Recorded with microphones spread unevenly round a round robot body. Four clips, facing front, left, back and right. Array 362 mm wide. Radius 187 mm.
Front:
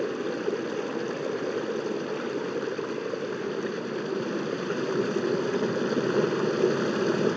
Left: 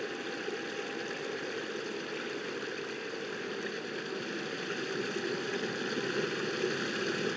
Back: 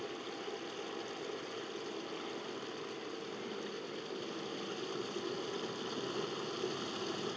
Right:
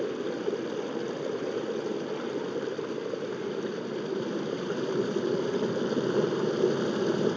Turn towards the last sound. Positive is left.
turn(degrees=-30)